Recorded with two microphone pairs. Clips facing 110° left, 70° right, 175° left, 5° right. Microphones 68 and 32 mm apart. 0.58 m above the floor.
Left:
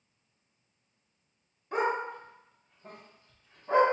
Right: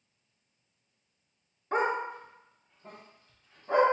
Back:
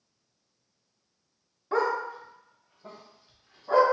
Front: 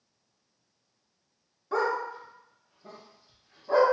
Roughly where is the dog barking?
Behind right.